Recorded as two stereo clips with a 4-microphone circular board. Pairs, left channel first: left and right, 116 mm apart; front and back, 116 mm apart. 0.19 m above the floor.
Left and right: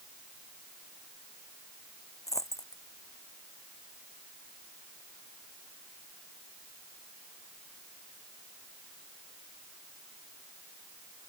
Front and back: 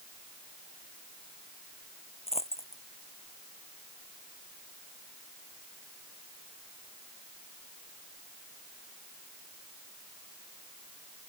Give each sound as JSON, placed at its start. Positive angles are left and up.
{"t": 2.3, "sound": "a dropped coin", "azimuth_deg": 25}